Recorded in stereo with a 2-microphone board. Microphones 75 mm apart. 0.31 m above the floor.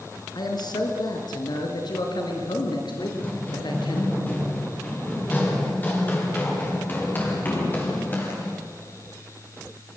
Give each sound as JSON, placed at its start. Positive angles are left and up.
{"t": 0.3, "sound": "a man speaking", "side_deg": 65, "distance_m": 4.5}
{"t": 3.0, "sound": "running footsteps", "side_deg": 20, "distance_m": 6.0}